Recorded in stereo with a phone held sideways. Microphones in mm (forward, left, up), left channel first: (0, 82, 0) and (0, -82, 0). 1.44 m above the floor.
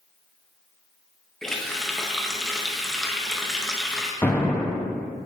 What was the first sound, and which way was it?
A running tap, centre (ahead or behind).